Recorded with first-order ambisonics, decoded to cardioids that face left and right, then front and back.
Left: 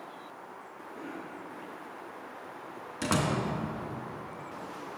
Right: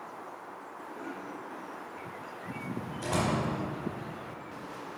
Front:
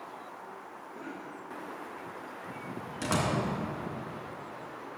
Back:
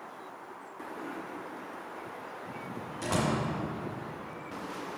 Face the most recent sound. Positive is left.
turn(degrees=60)